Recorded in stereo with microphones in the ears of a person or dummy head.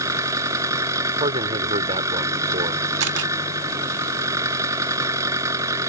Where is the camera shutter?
65° right (ahead or behind).